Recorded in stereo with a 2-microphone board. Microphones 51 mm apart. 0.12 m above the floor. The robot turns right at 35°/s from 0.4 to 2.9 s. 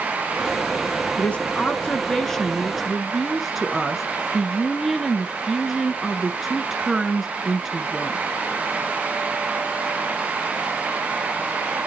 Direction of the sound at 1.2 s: 125° left.